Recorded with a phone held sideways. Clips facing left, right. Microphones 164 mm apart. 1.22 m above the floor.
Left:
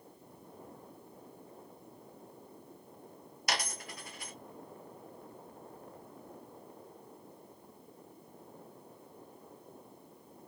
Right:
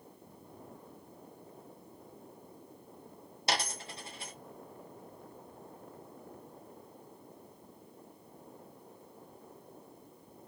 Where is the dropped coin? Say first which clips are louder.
Right 2 dB; 25° right (ahead or behind), 0.7 m.